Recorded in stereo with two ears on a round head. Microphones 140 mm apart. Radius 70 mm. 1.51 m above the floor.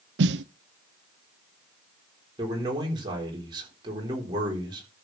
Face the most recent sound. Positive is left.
turn(degrees=-30)  # may be behind; listen again after turning